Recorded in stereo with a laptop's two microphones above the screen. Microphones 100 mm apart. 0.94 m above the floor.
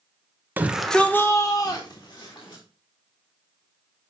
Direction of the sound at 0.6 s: 20° right (ahead or behind).